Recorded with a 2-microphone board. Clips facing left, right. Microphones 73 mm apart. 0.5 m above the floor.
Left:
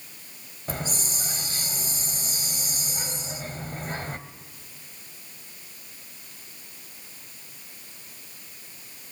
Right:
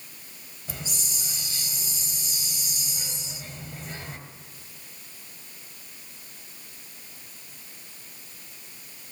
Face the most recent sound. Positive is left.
turn(degrees=55)  # may be behind; listen again after turning